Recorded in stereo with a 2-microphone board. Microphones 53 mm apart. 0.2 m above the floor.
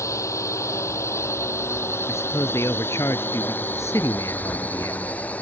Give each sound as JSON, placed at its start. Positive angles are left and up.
{"t": 0.0, "sound": "a drone", "side_deg": 70}
{"t": 2.1, "sound": "a man speaking", "side_deg": 65}